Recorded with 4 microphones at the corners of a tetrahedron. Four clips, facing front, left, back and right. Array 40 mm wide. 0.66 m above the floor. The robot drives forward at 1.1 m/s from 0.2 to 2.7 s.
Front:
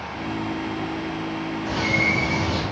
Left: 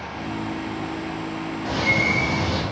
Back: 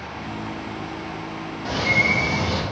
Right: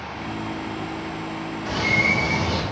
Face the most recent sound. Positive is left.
turn(degrees=160)